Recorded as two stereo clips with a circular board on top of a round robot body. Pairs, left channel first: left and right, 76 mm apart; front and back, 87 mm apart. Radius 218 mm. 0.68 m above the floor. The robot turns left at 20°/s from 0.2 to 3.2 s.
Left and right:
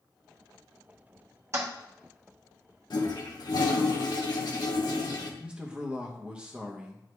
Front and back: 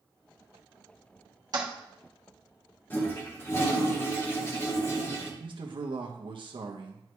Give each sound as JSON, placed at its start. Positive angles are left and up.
{"t": 1.5, "sound": "a toilet flushing", "azimuth_deg": -140, "distance_m": 1.2}
{"t": 2.9, "sound": "a toilet flushing", "azimuth_deg": 65, "distance_m": 1.5}
{"t": 5.4, "sound": "a man speaking", "azimuth_deg": -165, "distance_m": 1.0}